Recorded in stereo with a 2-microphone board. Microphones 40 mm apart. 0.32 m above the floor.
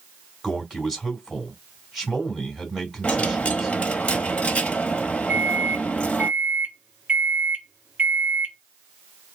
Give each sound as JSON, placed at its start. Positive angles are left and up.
{"t": 0.4, "sound": "a man speaking", "side_deg": -15, "distance_m": 2.5}
{"t": 3.0, "sound": "a dropped coin", "side_deg": 25, "distance_m": 1.2}
{"t": 5.3, "sound": "a microwave", "side_deg": -25, "distance_m": 1.3}